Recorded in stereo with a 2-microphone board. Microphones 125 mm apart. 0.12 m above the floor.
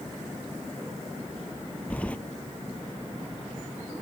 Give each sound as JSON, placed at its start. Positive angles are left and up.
{"t": 1.9, "sound": "keys jangling", "side_deg": 10}